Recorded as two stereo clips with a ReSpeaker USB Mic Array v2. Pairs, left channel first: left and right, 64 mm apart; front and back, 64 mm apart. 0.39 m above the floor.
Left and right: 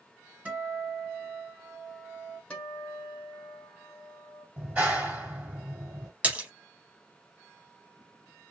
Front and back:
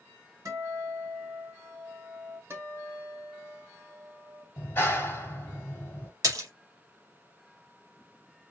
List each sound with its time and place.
0.5 s a guitar: 155° right, 1.6 m
2.5 s a guitar: 160° left, 1.2 m
4.6 s a clap: 40° right, 1.4 m
6.2 s a splash: 155° right, 0.8 m